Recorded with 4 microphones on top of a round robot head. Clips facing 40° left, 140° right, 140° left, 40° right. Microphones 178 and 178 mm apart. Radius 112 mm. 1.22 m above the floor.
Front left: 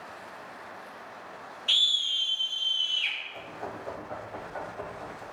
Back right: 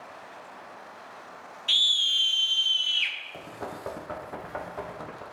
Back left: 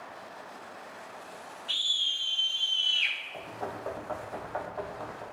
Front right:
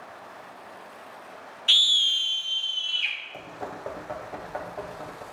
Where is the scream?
55° right, 0.6 m; by 3.1 s 160° right, 1.0 m.